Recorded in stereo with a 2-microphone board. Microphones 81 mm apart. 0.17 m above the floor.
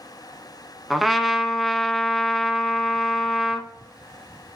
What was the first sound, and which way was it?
A trumpet, centre (ahead or behind).